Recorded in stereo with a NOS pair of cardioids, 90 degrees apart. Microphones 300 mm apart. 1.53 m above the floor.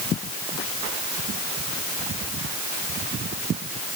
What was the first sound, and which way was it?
Only background noise.